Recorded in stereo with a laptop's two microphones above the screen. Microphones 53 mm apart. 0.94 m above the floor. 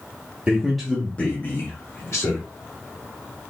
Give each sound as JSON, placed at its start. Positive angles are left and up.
{"t": 0.5, "sound": "a man speaking", "side_deg": -20, "distance_m": 1.0}